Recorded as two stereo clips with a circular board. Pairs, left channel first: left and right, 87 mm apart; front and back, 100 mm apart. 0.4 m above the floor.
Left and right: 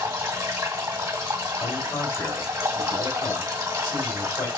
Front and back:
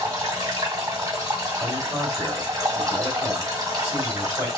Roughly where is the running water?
Behind right.